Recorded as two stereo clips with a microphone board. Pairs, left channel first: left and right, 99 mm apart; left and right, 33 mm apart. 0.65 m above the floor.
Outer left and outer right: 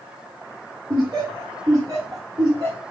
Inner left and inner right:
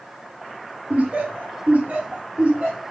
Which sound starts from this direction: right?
Laughter, at 0.9 s.